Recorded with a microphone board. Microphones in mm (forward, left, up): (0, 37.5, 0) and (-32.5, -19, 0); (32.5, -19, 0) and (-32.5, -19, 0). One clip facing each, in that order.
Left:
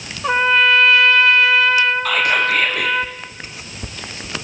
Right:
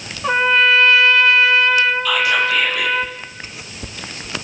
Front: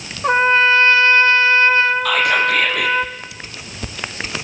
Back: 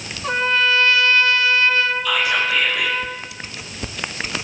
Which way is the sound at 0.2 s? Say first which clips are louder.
Even, front 6 dB; 30° right.